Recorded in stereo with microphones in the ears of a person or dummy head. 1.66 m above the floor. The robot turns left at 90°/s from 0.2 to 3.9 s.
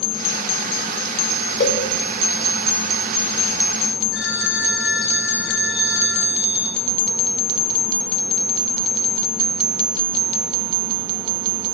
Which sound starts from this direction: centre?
A phone ringing, at 4.1 s.